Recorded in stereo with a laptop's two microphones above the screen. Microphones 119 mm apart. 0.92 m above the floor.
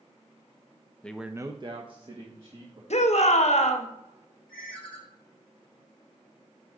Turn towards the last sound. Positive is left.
turn(degrees=5)  # may be behind; listen again after turning